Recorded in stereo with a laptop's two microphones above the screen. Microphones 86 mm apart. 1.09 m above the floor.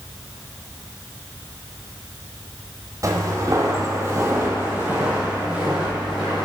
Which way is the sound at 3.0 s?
40° right (ahead or behind).